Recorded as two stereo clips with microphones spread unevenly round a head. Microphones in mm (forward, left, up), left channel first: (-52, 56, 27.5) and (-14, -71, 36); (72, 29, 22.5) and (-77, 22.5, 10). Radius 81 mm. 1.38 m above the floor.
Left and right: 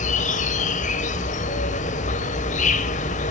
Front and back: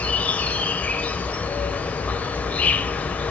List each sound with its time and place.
0.0 s an insect: 85° left, 1.5 m